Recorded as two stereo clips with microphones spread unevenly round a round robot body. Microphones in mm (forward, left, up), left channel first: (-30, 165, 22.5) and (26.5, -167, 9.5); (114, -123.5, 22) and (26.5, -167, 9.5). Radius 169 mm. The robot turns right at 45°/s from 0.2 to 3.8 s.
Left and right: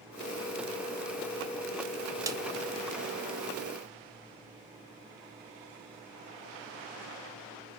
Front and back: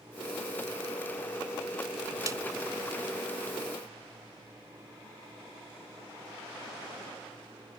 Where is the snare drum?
155° right, 0.5 m; by 2.4 s 145° right, 0.5 m.